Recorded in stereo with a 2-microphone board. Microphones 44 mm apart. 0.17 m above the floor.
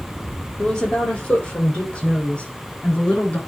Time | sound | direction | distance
0.6 | a woman speaking | 35° left (ahead or behind) | 5 m